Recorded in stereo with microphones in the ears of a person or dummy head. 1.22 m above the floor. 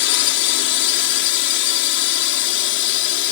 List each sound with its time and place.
0.0 s a drone: 60° left (ahead or behind)